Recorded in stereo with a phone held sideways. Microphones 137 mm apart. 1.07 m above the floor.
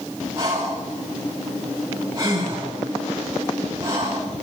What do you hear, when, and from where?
0.4 s breathing: 25° right (ahead or behind), 8.5 m